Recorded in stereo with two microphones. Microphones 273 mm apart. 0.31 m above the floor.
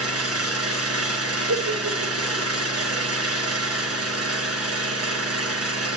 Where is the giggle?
75° right (ahead or behind), 5 m.